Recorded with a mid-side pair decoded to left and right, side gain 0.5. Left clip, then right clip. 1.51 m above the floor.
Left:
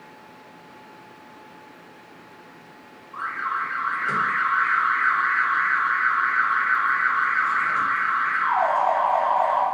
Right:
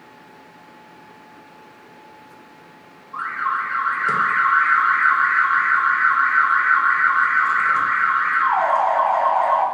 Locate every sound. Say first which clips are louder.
3.1 s an alarm: right 4 dB; 40° right, 0.9 m